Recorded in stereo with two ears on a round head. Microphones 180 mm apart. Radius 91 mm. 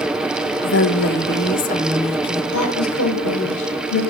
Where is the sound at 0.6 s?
70° left (ahead or behind), 1.4 m; by 2.4 s 25° left (ahead or behind), 1.9 m.